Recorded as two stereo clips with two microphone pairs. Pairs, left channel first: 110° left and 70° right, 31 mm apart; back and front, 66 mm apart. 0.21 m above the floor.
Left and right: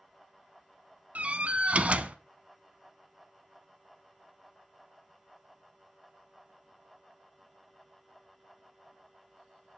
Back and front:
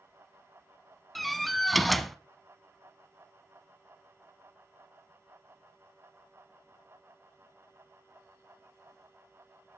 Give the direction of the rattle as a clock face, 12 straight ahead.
No rattle in this recording.